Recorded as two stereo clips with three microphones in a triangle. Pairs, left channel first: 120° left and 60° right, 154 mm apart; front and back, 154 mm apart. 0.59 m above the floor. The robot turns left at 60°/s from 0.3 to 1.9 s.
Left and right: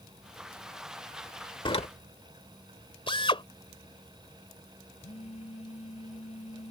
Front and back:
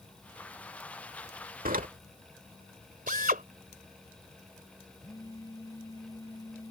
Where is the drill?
170° left.